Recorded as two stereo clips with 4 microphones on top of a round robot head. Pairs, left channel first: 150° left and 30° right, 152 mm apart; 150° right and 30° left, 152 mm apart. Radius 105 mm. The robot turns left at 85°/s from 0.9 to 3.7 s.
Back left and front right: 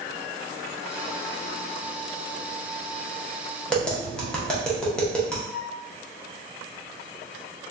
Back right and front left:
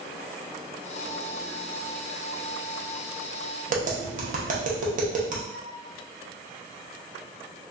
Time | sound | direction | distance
3.7 | tapping | 65° left | 0.9 m
5.5 | a flute | 110° left | 1.8 m